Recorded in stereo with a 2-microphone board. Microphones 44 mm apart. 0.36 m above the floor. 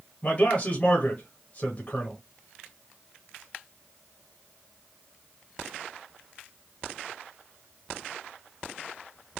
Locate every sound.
0.2 s a man speaking: 35° left (ahead or behind), 1.2 m